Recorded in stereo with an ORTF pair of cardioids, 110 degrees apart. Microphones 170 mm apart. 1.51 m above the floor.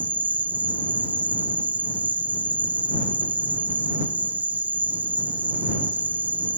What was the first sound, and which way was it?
An insect, 10° right.